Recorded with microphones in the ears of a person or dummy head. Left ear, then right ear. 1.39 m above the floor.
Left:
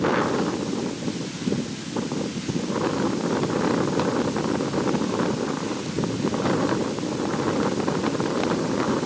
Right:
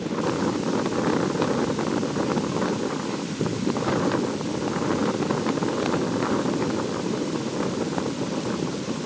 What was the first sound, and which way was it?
Only background noise.